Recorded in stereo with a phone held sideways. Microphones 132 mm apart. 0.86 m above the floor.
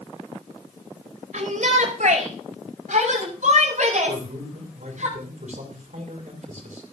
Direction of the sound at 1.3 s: 75° right (ahead or behind).